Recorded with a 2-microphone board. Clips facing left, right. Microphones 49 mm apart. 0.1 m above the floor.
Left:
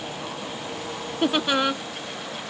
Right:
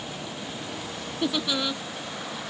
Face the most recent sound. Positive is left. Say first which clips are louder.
# left 5 dB
turn(degrees=50)  # may be behind; listen again after turning